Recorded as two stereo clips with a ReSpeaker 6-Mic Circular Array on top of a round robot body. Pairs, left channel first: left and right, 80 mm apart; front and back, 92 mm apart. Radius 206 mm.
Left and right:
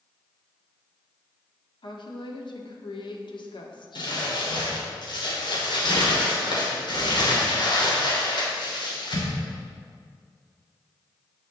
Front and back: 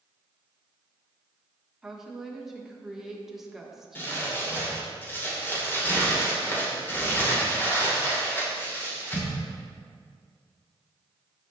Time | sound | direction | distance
1.8 | a woman speaking | 95° left | 1.6 m
4.0 | crumpling | 70° left | 2.5 m